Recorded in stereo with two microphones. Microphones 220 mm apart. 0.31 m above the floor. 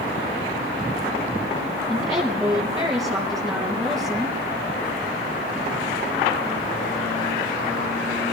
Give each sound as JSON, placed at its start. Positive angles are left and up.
{"t": 1.9, "sound": "a woman speaking", "side_deg": -15, "distance_m": 5.5}